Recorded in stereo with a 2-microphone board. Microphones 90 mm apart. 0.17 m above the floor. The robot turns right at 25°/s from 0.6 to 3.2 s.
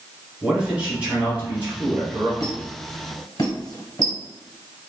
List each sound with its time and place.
0.4 s a man speaking: 10° right (ahead or behind), 1.1 m; by 2.3 s 20° right (ahead or behind), 1.1 m
2.4 s a squeak: 45° left (ahead or behind), 1.3 m; by 4.2 s 55° left (ahead or behind), 1.3 m